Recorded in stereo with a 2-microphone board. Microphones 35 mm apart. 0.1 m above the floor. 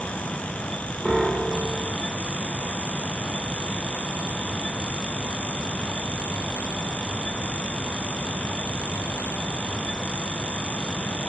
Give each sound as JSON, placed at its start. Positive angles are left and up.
{"t": 1.1, "sound": "a piano", "side_deg": -15, "distance_m": 3.0}